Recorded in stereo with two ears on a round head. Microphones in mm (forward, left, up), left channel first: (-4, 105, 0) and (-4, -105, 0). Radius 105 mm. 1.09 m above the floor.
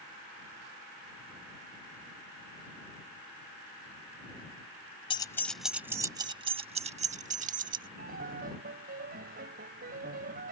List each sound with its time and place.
5.1 s keys jangling: 20° left (ahead or behind); by 7.9 s 35° right (ahead or behind)
8.0 s a piano: 40° right (ahead or behind)